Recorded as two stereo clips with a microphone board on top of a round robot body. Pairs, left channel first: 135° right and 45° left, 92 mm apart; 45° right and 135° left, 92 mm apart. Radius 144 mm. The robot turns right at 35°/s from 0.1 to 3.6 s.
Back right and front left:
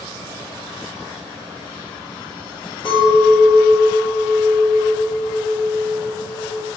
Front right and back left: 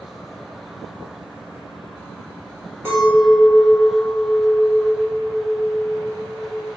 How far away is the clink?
About 1.5 m.